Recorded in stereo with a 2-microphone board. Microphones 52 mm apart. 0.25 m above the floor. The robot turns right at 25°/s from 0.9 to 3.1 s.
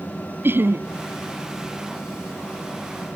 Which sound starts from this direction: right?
Laughter, at 0.4 s.